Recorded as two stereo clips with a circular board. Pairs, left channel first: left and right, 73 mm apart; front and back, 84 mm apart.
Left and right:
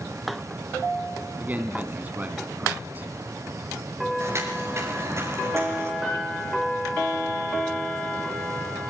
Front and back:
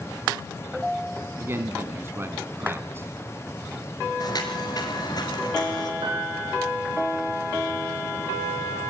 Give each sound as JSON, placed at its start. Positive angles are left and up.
{"t": 1.4, "sound": "a man speaking", "azimuth_deg": -140, "distance_m": 1.5}
{"t": 4.2, "sound": "footsteps", "azimuth_deg": -40, "distance_m": 5.0}
{"t": 6.0, "sound": "a piano", "azimuth_deg": -175, "distance_m": 9.5}